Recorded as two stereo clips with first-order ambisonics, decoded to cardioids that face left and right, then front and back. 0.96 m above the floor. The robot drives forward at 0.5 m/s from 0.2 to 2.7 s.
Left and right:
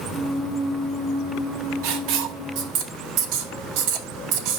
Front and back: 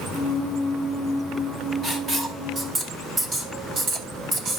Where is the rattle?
No rattle in this recording.